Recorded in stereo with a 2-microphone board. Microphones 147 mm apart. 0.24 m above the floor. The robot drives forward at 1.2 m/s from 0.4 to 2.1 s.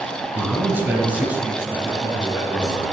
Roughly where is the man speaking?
Centre.